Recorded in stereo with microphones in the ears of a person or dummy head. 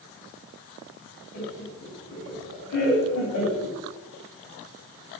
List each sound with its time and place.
1.3 s laughter: 75° left (ahead or behind), 3.5 m